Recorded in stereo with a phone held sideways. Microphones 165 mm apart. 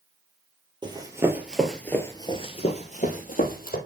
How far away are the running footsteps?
About 2 m.